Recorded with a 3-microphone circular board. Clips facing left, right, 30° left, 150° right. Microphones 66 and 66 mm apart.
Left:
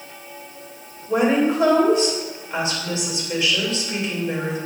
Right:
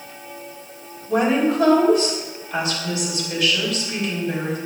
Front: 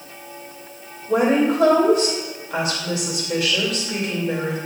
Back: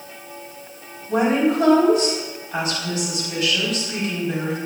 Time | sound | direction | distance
1.1 | a woman speaking | 30° left | 3 m